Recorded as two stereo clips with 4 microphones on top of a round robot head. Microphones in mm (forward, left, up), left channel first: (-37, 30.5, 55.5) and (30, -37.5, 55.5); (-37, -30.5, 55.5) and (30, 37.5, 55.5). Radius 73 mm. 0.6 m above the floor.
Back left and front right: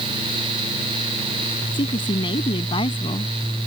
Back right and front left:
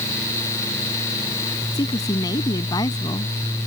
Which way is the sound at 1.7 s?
175° left.